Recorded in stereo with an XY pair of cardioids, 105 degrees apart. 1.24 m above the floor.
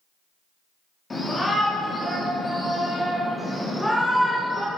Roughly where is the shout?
Ahead left.